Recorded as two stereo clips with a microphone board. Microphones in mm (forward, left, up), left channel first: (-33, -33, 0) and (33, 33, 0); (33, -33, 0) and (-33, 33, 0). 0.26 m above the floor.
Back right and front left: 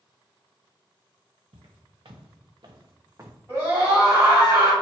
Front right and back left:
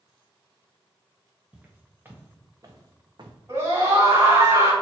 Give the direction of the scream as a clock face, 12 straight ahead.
9 o'clock.